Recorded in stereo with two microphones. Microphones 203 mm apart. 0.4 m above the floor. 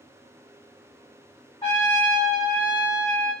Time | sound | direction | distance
1.6 | a trumpet | 20° left (ahead or behind) | 1.4 m